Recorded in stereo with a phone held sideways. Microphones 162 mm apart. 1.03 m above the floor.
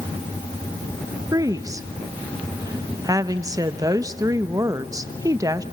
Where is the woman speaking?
20° right (ahead or behind), 1.0 m.